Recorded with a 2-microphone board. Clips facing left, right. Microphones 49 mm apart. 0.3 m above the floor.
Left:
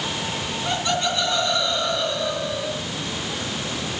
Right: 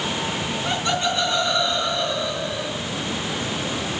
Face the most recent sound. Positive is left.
turn(degrees=15)  # may be behind; listen again after turning